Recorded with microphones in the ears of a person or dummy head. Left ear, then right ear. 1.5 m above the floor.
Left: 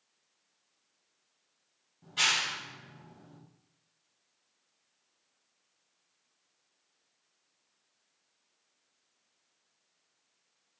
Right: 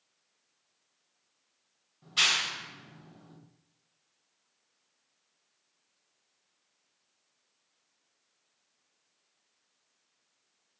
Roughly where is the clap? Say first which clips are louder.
Right 2 dB; right.